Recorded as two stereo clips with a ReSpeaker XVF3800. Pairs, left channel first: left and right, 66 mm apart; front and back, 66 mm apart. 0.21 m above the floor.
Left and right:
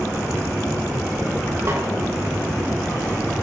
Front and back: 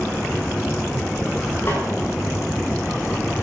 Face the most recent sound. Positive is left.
turn(degrees=-50)